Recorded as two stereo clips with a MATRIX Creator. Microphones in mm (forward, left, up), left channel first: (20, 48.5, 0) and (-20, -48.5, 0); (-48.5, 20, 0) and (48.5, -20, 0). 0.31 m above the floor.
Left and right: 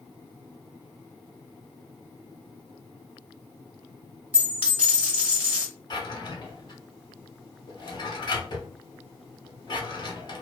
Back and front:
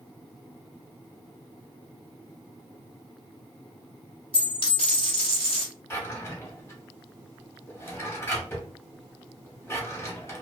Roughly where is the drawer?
Left.